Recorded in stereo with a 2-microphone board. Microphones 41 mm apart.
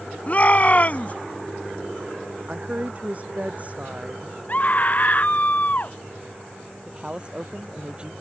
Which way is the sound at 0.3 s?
35° left (ahead or behind).